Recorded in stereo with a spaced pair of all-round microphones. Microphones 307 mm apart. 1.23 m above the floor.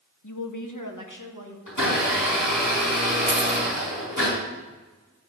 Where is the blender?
80° left, 5 m.